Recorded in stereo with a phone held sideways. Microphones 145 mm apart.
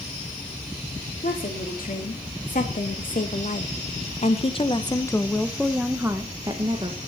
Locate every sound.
1.2 s a woman speaking: 80° left, 3.5 m; by 7.0 s 35° right (ahead or behind), 1.8 m